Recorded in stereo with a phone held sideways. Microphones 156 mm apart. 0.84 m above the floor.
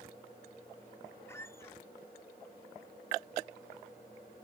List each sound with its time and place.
1.3 s a squeak: 15° left (ahead or behind)